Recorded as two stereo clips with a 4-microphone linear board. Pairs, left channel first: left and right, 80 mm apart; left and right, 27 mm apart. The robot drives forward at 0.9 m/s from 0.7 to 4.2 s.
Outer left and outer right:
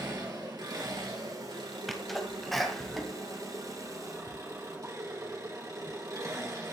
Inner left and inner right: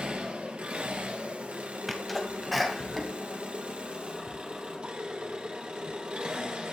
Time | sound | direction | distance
0.0 | an engine running | 60° right (ahead or behind) | 2.5 m
1.9 | a sneeze | centre (ahead or behind) | 1.7 m